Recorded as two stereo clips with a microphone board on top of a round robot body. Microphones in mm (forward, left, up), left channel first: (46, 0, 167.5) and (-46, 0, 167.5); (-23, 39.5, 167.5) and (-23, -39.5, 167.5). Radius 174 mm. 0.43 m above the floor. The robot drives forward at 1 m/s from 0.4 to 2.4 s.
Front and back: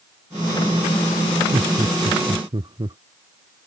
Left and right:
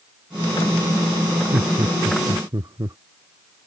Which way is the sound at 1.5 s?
135° right.